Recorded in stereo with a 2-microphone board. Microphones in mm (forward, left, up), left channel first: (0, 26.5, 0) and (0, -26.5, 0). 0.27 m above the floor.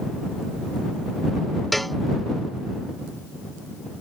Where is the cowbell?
Centre (ahead or behind).